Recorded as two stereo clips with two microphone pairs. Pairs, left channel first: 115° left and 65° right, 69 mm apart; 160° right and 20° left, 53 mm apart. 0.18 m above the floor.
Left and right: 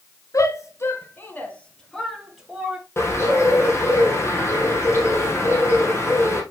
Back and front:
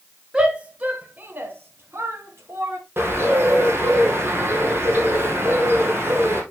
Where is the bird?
65° left, 3.5 m.